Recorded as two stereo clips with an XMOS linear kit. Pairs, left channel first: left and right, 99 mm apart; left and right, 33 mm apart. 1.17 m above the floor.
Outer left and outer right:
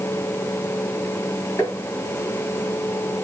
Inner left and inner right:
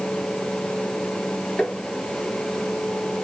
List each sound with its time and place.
1.6 s tapping: 25° left (ahead or behind), 5 m